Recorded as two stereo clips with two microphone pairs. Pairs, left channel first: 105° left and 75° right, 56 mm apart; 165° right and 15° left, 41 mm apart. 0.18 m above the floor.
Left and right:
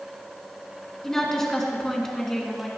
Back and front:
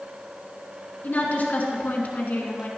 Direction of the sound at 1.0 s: Straight behind.